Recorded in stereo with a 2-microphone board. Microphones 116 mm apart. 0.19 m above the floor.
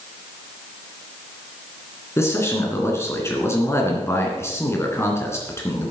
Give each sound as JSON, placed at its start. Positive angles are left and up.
{"t": 2.2, "sound": "a man speaking", "side_deg": 25, "distance_m": 2.5}